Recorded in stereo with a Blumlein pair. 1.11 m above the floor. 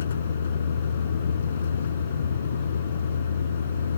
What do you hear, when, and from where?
0.0 s a vehicle: 65° left